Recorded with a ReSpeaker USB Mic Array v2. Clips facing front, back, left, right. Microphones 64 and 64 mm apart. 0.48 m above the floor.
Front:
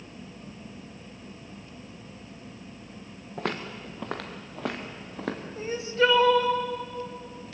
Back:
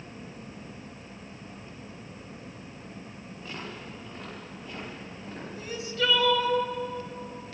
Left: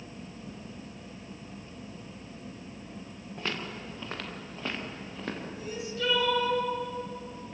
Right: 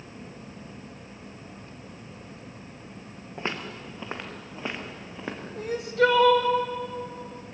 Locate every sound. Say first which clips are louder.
3.4 s footsteps: front 8 dB, right 3 dB; 25° right, 3 m; by 5.5 s 15° right, 5 m
5.6 s crying: front 6 dB, right 16 dB; 60° right, 1.8 m